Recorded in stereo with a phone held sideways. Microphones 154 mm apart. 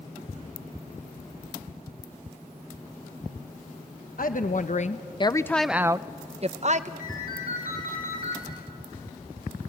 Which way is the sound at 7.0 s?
70° left (ahead or behind).